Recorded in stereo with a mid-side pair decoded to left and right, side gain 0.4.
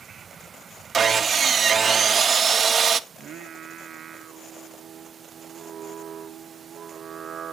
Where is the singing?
65° right, 0.6 m.